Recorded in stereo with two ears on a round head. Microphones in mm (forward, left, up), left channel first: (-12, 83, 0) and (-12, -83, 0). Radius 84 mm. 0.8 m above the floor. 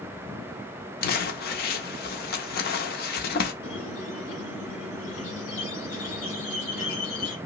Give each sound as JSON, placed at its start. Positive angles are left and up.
{"t": 1.0, "sound": "crumpling", "side_deg": 55, "distance_m": 0.6}
{"t": 3.6, "sound": "a squeak", "side_deg": 65, "distance_m": 1.5}